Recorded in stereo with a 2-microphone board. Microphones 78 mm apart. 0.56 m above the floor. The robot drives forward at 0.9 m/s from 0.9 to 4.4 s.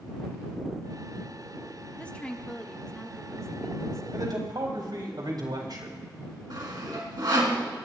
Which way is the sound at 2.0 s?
15° left (ahead or behind).